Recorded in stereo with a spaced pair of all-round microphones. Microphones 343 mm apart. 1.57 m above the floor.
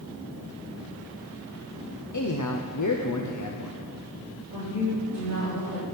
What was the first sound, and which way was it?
A man speaking, 55° left (ahead or behind).